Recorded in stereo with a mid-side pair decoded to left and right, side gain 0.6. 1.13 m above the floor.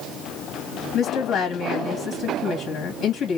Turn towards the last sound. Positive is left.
turn(degrees=55)